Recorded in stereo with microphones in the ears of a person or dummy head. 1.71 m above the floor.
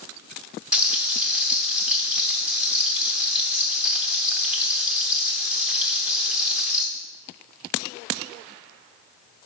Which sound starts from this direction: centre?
Frying, at 0.7 s.